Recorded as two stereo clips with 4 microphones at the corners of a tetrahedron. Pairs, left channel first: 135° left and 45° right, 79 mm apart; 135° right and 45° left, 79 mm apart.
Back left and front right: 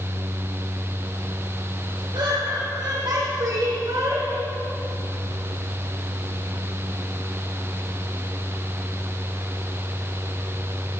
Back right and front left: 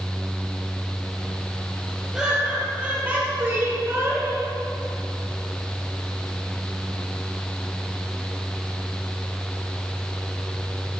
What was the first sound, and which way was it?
Laughter, 35° right.